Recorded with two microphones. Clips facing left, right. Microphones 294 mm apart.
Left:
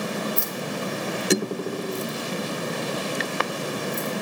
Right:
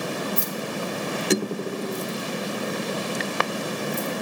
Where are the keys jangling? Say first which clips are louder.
Even; 45° right (ahead or behind), 1.5 m; by 4.1 s centre (ahead or behind), 3 m.